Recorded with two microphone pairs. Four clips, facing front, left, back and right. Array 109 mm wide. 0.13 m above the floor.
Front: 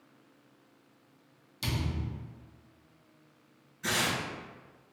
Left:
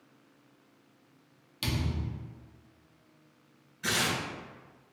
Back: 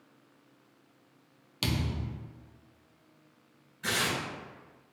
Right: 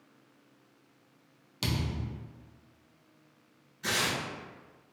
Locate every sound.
1.6 s a thud: 160° right, 0.6 m
3.8 s tearing paper: 135° left, 1.2 m